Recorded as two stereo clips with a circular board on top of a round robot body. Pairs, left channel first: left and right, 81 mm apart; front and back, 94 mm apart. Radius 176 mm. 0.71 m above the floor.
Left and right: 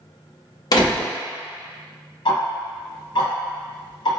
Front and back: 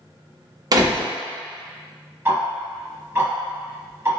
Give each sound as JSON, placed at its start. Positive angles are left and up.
{"t": 0.7, "sound": "a door slam", "azimuth_deg": 130, "distance_m": 0.7}
{"t": 2.2, "sound": "ticking", "azimuth_deg": 115, "distance_m": 0.9}